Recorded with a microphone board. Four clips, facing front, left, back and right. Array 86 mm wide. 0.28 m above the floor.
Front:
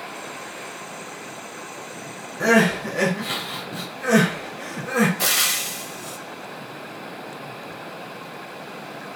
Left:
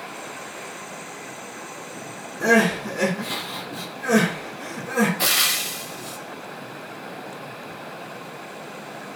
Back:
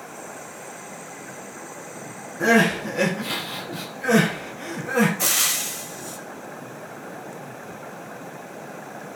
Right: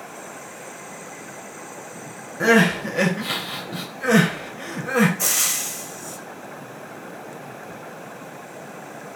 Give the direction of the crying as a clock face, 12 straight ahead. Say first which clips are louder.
Right 2 dB, front 1 dB; 3 o'clock.